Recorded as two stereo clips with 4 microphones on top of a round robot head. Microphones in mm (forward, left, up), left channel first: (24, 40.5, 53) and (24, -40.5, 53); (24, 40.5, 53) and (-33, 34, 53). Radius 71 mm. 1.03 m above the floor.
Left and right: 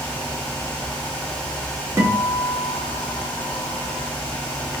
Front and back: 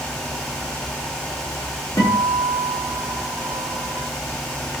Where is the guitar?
30° right, 1.3 m.